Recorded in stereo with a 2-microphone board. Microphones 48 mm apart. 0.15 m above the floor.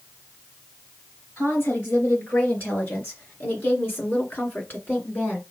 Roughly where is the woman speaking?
Left.